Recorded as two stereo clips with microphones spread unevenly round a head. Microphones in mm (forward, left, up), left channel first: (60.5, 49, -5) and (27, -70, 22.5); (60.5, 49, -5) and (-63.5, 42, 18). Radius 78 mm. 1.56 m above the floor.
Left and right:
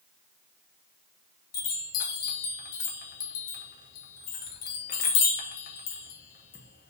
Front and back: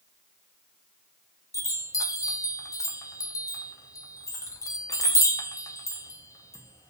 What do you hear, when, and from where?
1.5 s a chime: 70° left, 1.1 m